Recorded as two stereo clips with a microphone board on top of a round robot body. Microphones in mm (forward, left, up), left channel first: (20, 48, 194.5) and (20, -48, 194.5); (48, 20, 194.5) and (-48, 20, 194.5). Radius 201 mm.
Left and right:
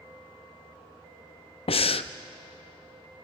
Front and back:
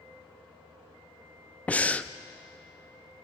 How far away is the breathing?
About 0.6 m.